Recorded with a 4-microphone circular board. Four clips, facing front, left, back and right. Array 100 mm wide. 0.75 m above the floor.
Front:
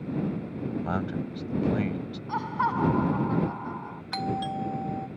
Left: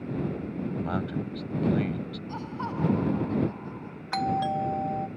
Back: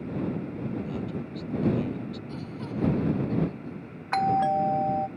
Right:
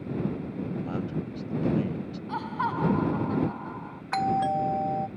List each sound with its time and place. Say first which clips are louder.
0.8 s a man speaking: left 2 dB, front 3 dB; 25° left
2.3 s laughter: right 7 dB, front 9 dB; 25° right
4.1 s a doorbell: right 2 dB, back 8 dB; 160° right